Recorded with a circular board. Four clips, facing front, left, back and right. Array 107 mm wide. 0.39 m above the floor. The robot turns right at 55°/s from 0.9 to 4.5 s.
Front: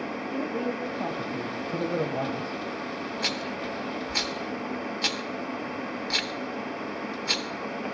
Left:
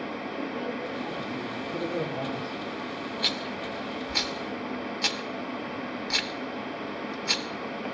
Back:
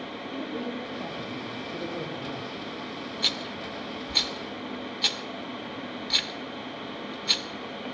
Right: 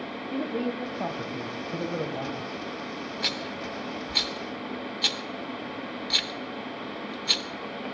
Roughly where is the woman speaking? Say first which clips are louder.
Right 6 dB, front 3 dB; right.